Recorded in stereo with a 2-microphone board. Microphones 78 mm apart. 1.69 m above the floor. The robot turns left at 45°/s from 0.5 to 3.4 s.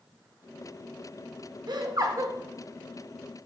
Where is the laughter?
110° right, 0.6 m; by 2.3 s 140° right, 0.6 m.